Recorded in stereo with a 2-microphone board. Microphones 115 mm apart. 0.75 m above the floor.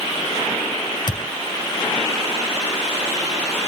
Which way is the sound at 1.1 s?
40° left (ahead or behind).